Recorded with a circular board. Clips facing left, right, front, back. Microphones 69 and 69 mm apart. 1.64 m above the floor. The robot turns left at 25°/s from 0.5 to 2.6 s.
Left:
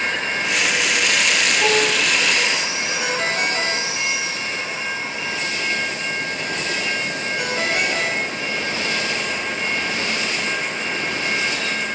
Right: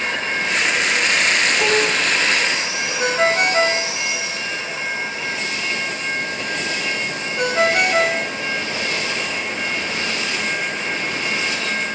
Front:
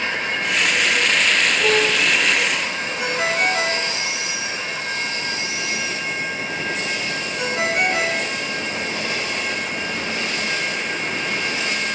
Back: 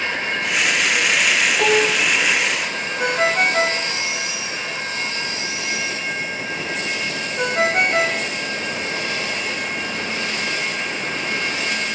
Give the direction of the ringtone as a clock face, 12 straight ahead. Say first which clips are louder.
Right 7 dB, back 3 dB; 5 o'clock.